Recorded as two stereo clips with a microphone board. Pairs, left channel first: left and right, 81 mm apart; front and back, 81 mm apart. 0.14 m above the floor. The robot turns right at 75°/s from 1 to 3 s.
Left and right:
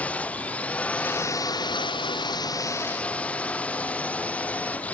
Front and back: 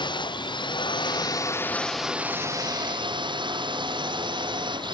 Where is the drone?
15° left; by 5.0 s 160° left.